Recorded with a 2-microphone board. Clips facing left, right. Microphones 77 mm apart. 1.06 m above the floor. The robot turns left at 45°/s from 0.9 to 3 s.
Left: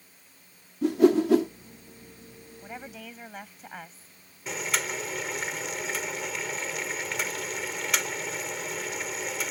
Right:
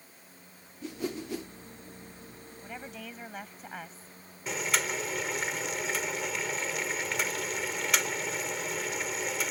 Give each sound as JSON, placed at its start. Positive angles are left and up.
{"t": 0.8, "sound": "a whoosh", "side_deg": 65}
{"t": 2.6, "sound": "a woman speaking", "side_deg": 20}
{"t": 4.5, "sound": "boiling", "side_deg": 0}